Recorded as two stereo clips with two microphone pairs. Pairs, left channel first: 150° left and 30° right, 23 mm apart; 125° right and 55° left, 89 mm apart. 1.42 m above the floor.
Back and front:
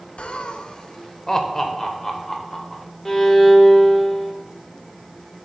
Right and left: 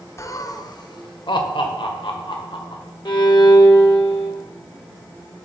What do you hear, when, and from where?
0.2 s laughter: straight behind, 0.7 m; by 2.8 s 120° right, 1.7 m
3.0 s a violin: 130° right, 1.1 m